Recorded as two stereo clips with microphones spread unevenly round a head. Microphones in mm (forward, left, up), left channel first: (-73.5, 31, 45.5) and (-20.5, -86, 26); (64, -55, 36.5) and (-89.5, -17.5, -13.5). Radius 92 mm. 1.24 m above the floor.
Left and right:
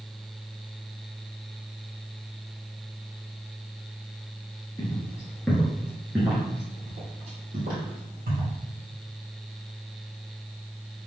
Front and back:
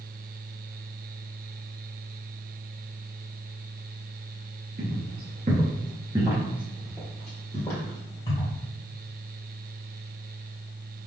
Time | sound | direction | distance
4.8 | footsteps | 135° left | 1.5 m